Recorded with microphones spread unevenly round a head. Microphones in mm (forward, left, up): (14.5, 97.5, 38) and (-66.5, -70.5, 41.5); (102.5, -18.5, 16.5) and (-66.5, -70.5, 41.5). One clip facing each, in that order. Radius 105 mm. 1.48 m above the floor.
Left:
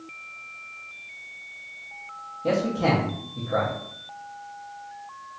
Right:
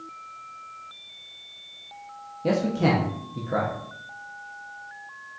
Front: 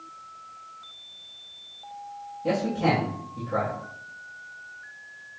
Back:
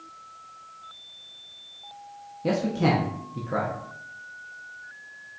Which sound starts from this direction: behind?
A man speaking, at 2.4 s.